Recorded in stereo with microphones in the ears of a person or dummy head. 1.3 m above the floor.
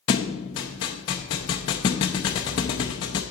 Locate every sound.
0.1 s a thud: 20° left (ahead or behind), 0.6 m